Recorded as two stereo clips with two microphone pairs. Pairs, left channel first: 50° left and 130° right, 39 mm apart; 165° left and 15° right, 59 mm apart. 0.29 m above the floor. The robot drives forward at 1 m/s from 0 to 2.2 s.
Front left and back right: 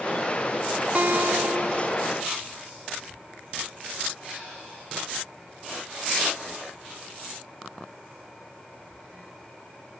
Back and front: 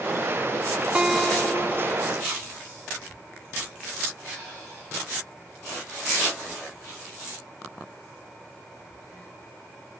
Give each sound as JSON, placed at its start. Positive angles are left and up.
{"t": 0.9, "sound": "a guitar", "azimuth_deg": -85, "distance_m": 0.7}